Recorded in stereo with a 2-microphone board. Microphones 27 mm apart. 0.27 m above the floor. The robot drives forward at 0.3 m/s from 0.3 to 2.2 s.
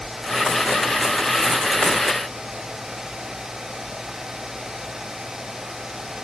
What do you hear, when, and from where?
Only background noise.